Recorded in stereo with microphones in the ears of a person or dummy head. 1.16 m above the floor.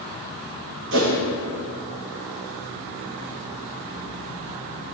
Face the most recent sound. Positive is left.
turn(degrees=-55)  # may be behind; listen again after turning